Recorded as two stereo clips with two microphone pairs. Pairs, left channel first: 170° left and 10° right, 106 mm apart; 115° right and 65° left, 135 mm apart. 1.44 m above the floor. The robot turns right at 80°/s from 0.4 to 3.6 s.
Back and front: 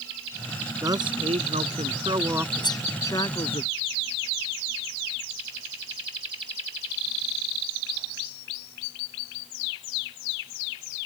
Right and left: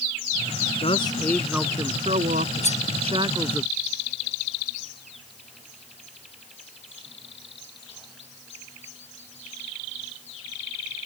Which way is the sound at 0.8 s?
75° right.